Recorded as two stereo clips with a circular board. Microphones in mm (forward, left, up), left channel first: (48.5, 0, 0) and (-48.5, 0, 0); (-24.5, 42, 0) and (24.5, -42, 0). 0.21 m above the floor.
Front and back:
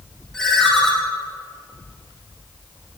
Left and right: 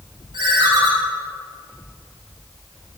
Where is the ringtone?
85° right, 4.5 m.